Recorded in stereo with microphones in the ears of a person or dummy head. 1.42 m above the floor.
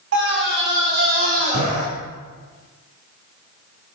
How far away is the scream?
About 3 m.